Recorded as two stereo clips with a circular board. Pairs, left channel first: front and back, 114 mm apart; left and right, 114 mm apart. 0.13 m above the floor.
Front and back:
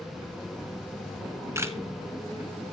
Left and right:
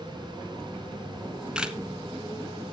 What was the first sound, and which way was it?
A camera shutter, 160° right.